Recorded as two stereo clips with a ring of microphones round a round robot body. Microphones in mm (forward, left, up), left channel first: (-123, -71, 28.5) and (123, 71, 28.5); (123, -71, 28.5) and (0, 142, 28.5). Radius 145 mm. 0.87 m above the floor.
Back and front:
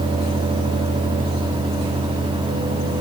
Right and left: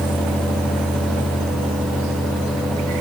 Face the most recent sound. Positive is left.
No sound to turn to.